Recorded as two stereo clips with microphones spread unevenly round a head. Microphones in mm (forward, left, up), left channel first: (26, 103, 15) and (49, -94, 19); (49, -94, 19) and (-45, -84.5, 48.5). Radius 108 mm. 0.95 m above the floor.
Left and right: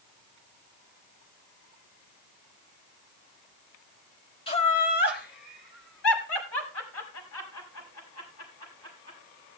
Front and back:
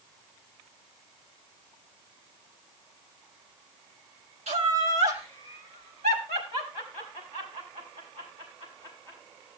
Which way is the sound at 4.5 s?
160° left.